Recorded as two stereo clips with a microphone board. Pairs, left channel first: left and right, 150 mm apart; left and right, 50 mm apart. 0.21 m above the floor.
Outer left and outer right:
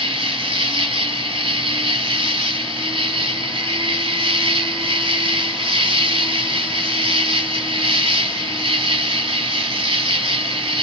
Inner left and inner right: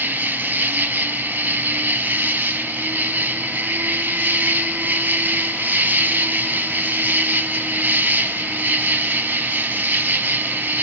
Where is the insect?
35° right (ahead or behind), 0.7 m.